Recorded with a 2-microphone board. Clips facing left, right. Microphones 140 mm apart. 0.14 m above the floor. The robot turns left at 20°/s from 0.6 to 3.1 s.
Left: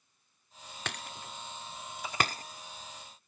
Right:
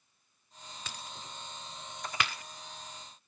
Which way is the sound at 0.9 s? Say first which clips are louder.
Left 5 dB; 70° left (ahead or behind).